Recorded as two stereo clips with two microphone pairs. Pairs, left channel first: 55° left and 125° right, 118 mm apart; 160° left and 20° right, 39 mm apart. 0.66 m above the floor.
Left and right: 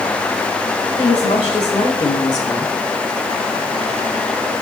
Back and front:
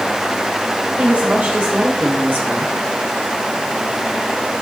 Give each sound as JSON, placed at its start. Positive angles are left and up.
{"t": 1.0, "sound": "a woman speaking", "azimuth_deg": 25, "distance_m": 2.5}